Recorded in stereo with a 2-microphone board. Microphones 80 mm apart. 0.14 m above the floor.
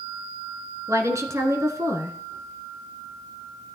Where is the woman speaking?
40° right (ahead or behind), 1.5 m.